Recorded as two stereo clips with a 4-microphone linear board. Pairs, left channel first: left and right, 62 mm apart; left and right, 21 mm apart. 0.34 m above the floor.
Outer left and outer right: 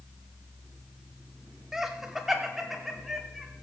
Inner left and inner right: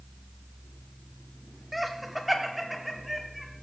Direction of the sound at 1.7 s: 10° right (ahead or behind).